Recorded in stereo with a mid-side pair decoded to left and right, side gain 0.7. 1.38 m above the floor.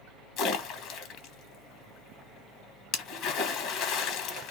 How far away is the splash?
About 0.9 m.